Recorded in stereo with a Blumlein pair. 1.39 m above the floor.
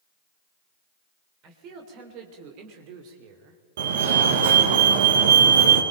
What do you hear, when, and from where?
1.4 s a man speaking: 35° right, 4 m; by 3.6 s 45° right, 3 m
3.8 s a fire alarm: 55° right, 2.5 m